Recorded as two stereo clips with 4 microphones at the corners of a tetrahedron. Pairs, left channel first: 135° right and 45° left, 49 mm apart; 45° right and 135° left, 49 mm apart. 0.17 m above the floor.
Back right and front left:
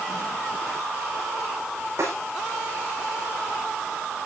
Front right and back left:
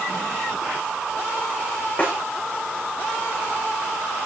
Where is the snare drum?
15° left, 8.5 m.